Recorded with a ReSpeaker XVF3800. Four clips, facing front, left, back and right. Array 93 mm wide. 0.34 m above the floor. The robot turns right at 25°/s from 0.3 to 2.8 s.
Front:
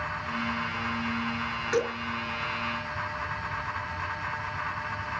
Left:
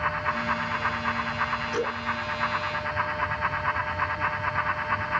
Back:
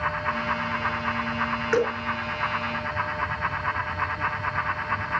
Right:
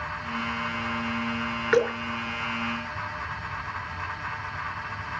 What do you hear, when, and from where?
1.7 s dripping: 115° right, 6 m; by 2.0 s 110° right, 6 m